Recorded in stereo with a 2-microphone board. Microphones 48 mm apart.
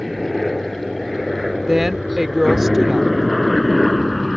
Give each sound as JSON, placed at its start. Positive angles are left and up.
{"t": 0.0, "sound": "a helicopter", "side_deg": 0}
{"t": 1.7, "sound": "a woman speaking", "side_deg": -5}